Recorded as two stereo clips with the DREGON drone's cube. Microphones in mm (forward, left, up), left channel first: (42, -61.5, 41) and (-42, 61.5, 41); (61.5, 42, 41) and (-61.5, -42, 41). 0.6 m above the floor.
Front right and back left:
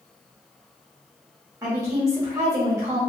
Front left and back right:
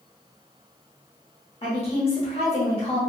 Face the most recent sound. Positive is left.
turn(degrees=65)